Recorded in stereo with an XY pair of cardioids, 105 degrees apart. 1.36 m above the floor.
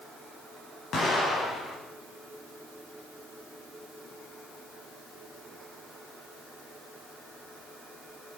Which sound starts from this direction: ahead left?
An explosion, at 0.9 s.